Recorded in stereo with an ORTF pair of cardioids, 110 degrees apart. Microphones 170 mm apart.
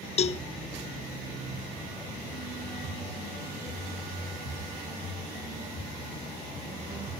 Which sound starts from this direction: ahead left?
A cowbell, at 0.2 s.